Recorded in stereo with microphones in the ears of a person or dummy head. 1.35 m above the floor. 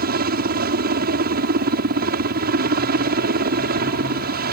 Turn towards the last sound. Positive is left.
turn(degrees=-50)  # may be behind; listen again after turning